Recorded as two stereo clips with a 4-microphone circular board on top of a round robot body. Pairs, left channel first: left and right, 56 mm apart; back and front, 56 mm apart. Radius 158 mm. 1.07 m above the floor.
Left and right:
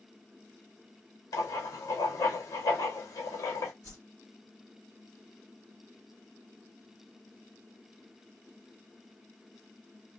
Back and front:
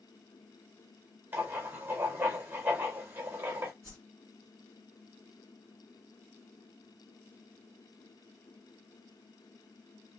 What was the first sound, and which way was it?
Writing, 60° left.